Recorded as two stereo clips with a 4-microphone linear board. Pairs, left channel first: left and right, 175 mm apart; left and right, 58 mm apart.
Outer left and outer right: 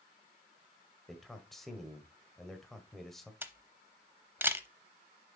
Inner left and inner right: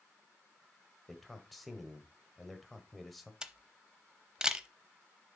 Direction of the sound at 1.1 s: Centre (ahead or behind).